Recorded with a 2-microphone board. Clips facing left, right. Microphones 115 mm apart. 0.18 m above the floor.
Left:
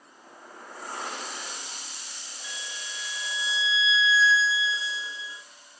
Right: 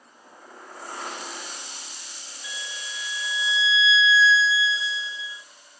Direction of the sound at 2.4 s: 35° left (ahead or behind).